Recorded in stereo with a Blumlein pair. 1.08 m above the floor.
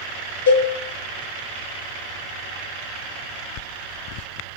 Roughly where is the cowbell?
Ahead left.